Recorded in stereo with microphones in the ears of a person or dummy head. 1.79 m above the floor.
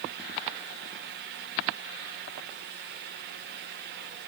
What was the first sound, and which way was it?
Only background noise.